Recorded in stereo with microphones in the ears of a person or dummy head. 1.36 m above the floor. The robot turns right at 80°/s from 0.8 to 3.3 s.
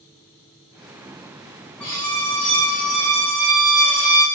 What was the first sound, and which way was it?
A violin, 10° left (ahead or behind).